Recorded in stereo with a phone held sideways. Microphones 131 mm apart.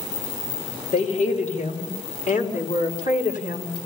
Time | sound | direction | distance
0.9 | a woman speaking | 65° left (ahead or behind) | 4 m